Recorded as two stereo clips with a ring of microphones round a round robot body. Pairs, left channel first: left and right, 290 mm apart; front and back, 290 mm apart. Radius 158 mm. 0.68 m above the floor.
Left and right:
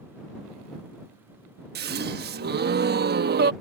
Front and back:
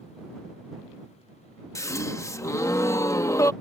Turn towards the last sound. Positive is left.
turn(degrees=-75)